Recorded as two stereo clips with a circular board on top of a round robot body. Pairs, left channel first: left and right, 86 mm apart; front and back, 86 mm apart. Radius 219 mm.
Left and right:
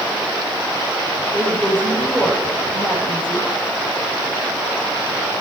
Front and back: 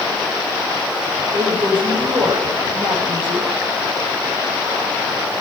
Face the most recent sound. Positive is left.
turn(degrees=165)